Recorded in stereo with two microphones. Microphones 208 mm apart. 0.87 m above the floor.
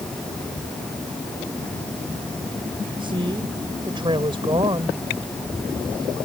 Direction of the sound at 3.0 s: 25° right (ahead or behind).